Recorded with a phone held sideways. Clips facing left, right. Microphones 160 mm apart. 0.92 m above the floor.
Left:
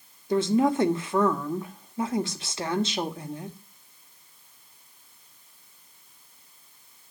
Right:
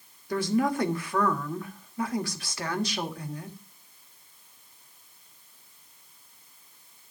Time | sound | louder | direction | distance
0.3 | a woman speaking | left 4 dB | 25° left (ahead or behind) | 1.3 m